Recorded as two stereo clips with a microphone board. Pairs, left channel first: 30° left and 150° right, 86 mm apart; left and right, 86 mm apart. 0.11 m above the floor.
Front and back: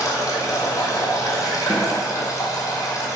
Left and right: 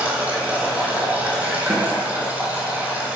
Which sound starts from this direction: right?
A snare drum, at 1.7 s.